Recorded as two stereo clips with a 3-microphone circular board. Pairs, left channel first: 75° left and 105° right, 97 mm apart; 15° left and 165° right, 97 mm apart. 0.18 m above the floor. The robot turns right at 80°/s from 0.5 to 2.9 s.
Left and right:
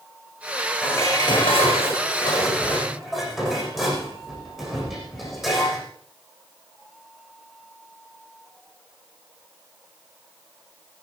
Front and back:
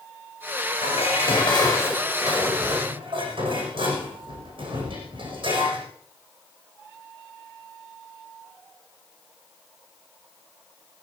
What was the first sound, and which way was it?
Dishes clattering, straight ahead.